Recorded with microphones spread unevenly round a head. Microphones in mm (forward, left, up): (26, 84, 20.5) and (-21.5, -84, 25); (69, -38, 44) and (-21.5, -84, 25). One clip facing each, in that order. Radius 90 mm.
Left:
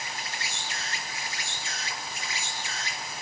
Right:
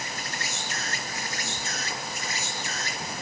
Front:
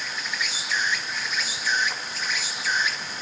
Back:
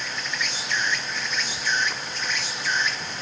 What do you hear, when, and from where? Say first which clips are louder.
0.0 s an insect: right 3 dB, back 1 dB; 55° right, 2.0 m